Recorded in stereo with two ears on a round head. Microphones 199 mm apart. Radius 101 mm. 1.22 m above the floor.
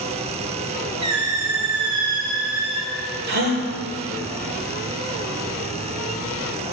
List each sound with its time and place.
1.0 s a squeak: 55° right (ahead or behind), 6 m
3.3 s a gasp: 45° right (ahead or behind), 2.5 m